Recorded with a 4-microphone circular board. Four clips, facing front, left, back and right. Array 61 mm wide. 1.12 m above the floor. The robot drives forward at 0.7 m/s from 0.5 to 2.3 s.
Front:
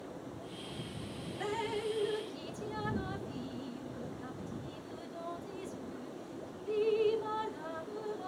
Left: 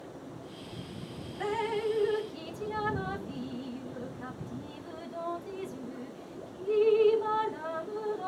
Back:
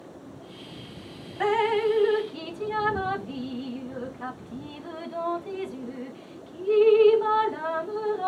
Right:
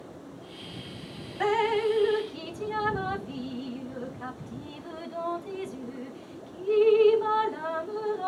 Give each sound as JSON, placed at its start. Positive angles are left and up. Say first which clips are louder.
{"t": 1.4, "sound": "dripping", "louder": "right 6 dB, back 14 dB", "azimuth_deg": -150}